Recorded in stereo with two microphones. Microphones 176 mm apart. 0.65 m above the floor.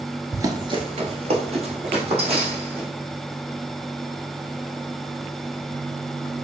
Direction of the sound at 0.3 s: 15° right (ahead or behind).